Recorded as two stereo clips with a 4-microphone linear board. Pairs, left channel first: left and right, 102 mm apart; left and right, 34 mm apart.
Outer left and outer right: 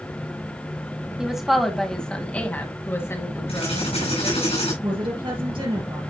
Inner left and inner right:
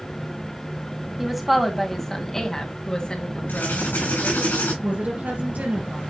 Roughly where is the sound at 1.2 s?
Centre.